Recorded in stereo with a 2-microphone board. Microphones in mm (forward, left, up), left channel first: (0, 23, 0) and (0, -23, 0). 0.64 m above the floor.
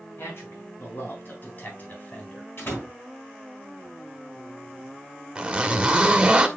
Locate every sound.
0.2 s a man speaking: 60° left (ahead or behind), 5.5 m; by 2.5 s 30° left (ahead or behind), 3.5 m
2.6 s a door slam: 55° left (ahead or behind), 4 m
5.3 s a zipper: 15° right (ahead or behind), 1.4 m